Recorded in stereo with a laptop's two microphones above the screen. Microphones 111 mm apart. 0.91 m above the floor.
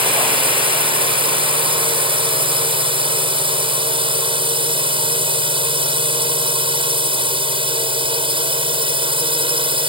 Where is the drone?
50° right (ahead or behind).